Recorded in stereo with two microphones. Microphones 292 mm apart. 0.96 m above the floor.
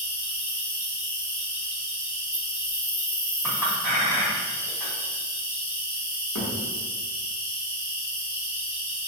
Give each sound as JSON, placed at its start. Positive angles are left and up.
{"t": 0.0, "sound": "an insect", "side_deg": 30, "distance_m": 1.5}
{"t": 3.4, "sound": "a clink", "side_deg": -5, "distance_m": 1.4}
{"t": 6.3, "sound": "a thud", "side_deg": 65, "distance_m": 0.9}